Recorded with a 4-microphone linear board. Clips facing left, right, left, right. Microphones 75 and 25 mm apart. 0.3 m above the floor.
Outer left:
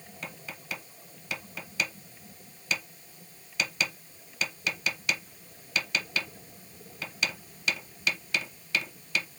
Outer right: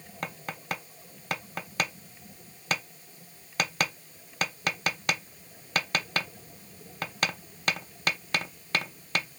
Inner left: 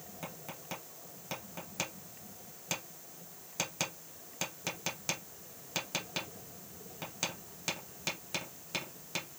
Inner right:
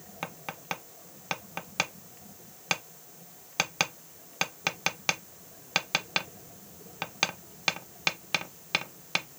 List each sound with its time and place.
0.2 s tapping: 50° right (ahead or behind), 0.6 m